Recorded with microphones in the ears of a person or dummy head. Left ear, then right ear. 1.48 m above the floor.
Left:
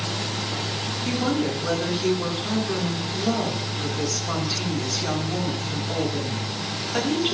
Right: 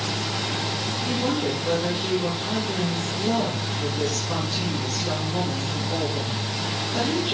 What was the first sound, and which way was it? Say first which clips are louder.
A woman speaking: left 1 dB; 70° left (ahead or behind).